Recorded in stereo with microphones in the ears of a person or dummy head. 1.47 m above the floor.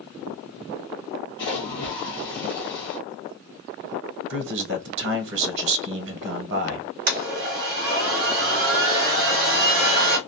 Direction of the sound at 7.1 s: 50° right (ahead or behind).